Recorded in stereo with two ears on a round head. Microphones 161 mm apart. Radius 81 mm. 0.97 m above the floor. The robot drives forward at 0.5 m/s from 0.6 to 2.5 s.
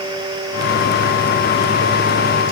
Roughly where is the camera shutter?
I don't hear a camera shutter.